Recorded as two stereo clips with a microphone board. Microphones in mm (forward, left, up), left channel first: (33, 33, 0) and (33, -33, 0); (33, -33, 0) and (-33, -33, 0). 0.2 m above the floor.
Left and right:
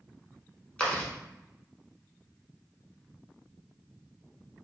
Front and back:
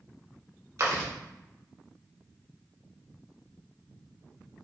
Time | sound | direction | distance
0.8 | chewing | 160° left | 0.8 m